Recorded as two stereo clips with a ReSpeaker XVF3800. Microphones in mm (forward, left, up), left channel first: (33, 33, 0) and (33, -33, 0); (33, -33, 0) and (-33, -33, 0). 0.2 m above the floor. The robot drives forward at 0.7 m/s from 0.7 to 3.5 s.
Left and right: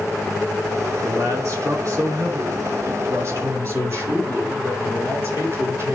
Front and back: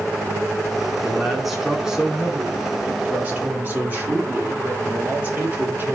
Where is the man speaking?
85° right, 2.5 m; by 6.0 s 125° right, 3 m.